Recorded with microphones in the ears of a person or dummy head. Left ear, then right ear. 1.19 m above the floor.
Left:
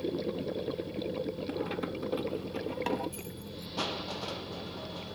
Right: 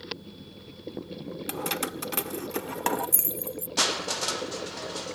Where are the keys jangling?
80° right; by 3.7 s 40° right (ahead or behind).